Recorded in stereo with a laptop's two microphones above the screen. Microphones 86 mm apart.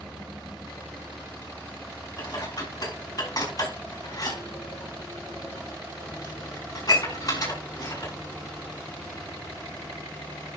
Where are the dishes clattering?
45° left (ahead or behind), 5.5 m.